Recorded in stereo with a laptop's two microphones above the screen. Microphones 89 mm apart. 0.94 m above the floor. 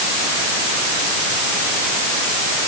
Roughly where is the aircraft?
I don't hear an aircraft.